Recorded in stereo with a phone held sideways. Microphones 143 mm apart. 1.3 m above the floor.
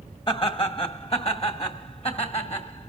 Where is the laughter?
35° left (ahead or behind), 1.6 m; by 2.9 s 45° left (ahead or behind), 3 m.